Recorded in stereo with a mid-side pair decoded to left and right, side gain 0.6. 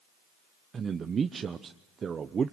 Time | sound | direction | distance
0.7 | a man speaking | 35° right | 0.9 m